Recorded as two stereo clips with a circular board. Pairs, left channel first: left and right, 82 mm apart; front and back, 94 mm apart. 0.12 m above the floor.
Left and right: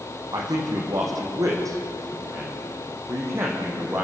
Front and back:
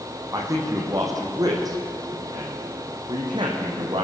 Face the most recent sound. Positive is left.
turn(degrees=-150)